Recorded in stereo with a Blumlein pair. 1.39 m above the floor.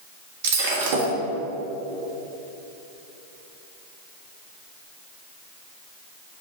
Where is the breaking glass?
60° right, 1.5 m.